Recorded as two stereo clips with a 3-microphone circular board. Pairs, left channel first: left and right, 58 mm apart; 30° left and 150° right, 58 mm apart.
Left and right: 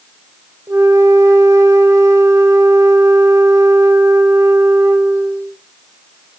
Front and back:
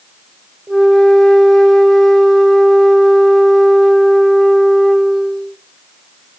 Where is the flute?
65° right, 6 m.